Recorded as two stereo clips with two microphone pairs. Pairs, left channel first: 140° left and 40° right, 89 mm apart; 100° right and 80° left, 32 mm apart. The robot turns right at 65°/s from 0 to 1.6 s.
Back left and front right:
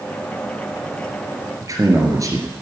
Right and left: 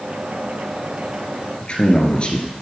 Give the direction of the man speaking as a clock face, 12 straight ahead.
2 o'clock.